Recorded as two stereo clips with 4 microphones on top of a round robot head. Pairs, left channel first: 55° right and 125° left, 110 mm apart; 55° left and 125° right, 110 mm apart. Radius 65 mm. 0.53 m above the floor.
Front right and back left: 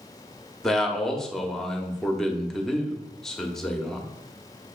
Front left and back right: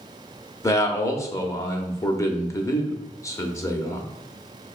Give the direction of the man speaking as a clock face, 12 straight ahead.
11 o'clock.